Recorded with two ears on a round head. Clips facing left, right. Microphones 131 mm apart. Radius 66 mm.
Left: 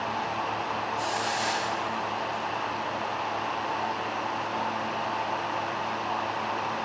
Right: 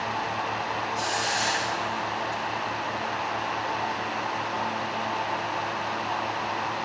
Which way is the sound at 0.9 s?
50° right (ahead or behind).